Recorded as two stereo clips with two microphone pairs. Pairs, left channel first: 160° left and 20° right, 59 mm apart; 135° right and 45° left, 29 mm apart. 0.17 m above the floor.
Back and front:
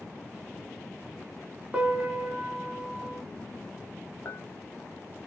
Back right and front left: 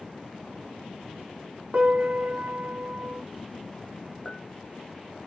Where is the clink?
170° left, 1.5 m.